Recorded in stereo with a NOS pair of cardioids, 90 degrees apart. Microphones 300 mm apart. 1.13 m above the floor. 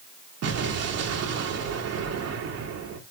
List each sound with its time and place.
0.4 s an explosion: 55° right, 3 m